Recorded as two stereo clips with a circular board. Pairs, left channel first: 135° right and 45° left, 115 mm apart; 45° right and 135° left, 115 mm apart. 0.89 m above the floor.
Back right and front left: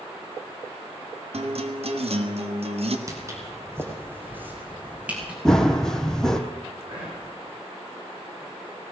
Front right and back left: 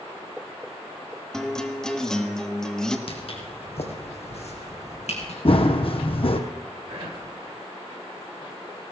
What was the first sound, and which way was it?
A guitar, 40° left.